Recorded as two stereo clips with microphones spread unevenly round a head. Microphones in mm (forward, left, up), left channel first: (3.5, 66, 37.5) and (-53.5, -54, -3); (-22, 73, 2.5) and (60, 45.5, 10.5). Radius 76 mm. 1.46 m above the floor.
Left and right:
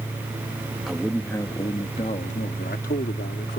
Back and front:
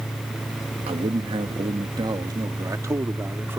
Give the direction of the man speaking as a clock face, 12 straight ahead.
1 o'clock.